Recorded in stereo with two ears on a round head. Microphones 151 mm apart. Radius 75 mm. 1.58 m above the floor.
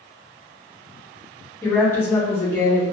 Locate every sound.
1.6 s a woman speaking: 15° left (ahead or behind), 1.1 m